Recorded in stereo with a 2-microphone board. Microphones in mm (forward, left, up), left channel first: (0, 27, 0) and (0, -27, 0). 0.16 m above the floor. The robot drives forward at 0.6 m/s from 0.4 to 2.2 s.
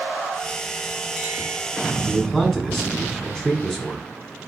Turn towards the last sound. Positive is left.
turn(degrees=10)  # may be behind; listen again after turning